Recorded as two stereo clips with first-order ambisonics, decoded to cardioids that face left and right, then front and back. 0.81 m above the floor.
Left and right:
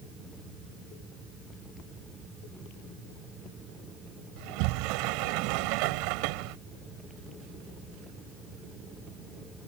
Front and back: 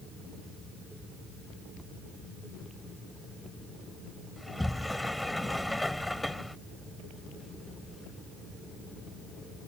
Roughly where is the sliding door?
Right.